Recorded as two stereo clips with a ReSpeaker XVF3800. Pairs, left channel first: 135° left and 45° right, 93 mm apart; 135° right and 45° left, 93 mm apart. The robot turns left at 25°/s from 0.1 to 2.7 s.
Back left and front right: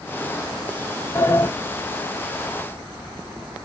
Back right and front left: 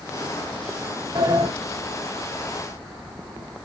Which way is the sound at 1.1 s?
75° left.